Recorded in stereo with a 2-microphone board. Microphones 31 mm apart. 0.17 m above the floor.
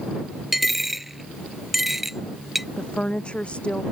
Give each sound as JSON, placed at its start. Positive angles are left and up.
{"t": 0.5, "sound": "a dropped coin", "side_deg": -5}
{"t": 2.8, "sound": "a woman speaking", "side_deg": 30}